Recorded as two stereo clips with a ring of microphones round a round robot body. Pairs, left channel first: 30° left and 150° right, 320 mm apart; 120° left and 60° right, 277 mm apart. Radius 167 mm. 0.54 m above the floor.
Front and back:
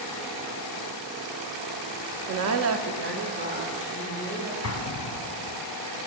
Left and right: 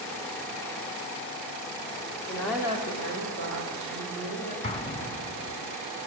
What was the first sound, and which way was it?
A woman speaking, 170° right.